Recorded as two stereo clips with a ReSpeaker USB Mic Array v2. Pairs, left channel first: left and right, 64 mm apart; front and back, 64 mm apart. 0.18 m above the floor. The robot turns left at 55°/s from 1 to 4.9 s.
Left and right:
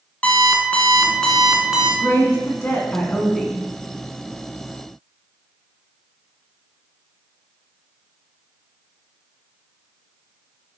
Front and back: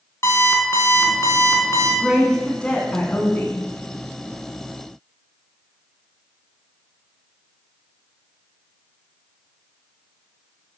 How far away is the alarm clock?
About 1.2 m.